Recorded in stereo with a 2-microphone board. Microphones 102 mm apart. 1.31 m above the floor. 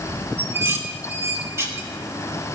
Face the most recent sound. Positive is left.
turn(degrees=-25)  # may be behind; listen again after turning